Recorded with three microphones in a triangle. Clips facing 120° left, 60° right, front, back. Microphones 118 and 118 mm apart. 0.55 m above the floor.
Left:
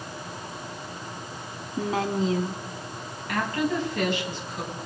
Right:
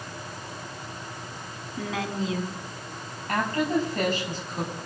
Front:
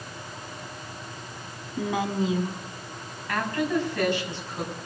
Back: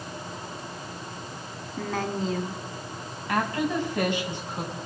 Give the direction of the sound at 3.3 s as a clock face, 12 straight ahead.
4 o'clock.